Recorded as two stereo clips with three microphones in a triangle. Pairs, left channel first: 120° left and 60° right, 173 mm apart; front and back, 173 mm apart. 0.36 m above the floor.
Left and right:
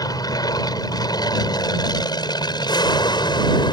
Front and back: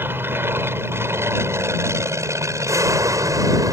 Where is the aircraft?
125° left; by 3.7 s 135° left.